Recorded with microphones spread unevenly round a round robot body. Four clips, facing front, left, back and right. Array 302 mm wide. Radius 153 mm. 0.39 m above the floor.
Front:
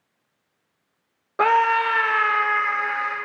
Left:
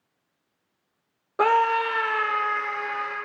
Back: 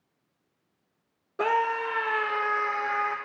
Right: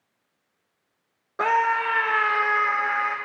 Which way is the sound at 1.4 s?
85° left.